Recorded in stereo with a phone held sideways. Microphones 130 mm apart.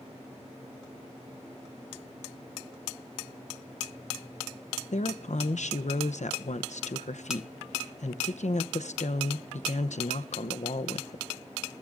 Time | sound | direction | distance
4.9 | a woman speaking | 70° left (ahead or behind) | 0.7 m